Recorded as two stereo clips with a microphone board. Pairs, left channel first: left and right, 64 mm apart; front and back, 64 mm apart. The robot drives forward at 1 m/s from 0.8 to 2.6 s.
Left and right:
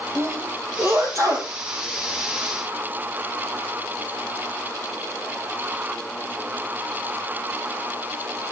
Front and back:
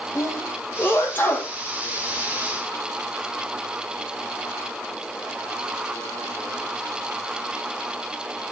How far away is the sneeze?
About 4 m.